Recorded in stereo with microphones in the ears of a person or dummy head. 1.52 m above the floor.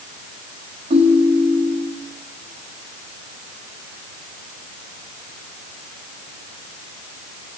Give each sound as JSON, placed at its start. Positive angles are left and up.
{"t": 0.9, "sound": "a ringtone", "side_deg": -35, "distance_m": 2.5}